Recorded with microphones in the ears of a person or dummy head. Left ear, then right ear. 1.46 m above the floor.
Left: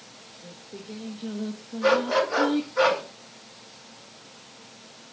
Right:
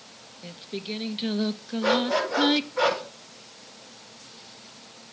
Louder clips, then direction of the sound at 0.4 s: Right 8 dB; 70° right (ahead or behind).